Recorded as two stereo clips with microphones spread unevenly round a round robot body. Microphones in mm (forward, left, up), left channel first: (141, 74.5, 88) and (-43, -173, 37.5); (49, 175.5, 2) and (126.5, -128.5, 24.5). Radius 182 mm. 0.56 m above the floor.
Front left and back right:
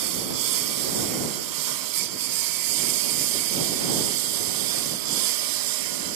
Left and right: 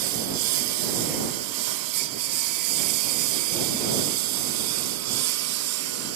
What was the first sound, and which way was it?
A lawn mower, 110° right.